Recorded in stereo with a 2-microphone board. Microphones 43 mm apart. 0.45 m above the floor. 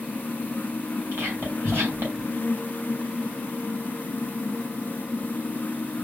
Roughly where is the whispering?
Right.